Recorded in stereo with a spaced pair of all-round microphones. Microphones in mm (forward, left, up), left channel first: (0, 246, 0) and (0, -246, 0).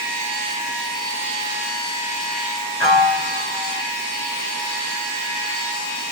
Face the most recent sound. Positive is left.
turn(degrees=60)  # may be behind; listen again after turning